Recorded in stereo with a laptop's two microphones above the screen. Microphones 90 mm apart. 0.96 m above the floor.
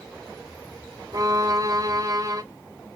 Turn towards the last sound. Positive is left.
turn(degrees=-40)  # may be behind; listen again after turning